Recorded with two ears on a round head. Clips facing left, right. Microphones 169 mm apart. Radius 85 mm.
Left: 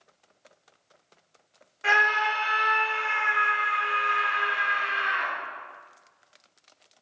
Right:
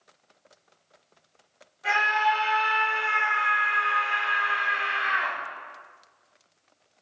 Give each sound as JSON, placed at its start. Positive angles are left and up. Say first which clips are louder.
{"t": 1.8, "sound": "a scream", "louder": "right 2 dB", "side_deg": 80, "distance_m": 2.0}